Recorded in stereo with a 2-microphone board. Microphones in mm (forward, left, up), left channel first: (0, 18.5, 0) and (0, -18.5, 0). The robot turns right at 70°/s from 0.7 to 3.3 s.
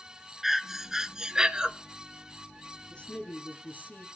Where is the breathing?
10° right (ahead or behind), 0.6 m; by 1.7 s 20° right (ahead or behind), 0.6 m.